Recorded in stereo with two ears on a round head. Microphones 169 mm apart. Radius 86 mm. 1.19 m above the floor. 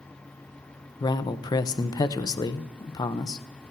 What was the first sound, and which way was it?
A man speaking, 25° left (ahead or behind).